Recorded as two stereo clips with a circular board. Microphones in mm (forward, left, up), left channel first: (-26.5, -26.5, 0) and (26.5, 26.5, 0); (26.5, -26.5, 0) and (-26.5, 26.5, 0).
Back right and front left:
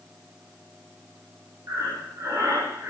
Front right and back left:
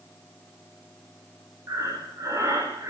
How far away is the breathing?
About 9.5 m.